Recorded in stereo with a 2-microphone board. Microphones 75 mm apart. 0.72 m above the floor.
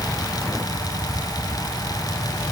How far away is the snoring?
I don't hear snoring.